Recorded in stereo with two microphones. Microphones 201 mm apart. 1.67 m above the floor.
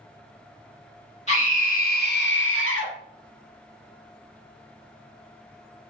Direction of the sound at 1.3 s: 35° left (ahead or behind).